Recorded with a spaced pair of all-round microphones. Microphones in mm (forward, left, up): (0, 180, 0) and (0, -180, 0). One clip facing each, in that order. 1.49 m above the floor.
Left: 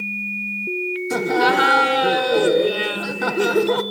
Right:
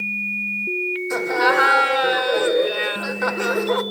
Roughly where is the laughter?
Left.